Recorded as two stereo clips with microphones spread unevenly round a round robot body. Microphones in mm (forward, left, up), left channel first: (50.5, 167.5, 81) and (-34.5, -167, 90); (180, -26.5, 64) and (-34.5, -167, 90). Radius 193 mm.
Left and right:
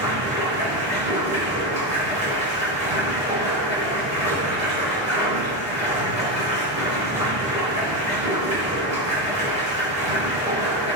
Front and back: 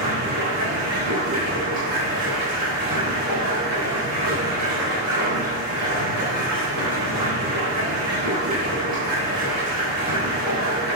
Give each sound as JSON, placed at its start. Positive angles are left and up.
{"t": 0.0, "sound": "running water", "azimuth_deg": -175, "distance_m": 4.0}